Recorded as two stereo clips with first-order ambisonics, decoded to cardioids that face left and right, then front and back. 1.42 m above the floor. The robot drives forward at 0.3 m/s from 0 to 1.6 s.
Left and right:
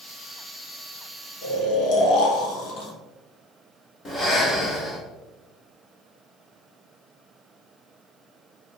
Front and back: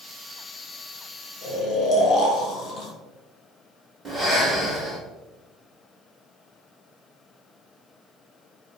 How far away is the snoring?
About 1.1 m.